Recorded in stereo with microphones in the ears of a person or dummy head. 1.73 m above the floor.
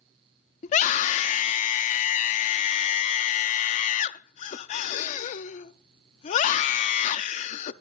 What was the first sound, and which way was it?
A scream, 45° left (ahead or behind).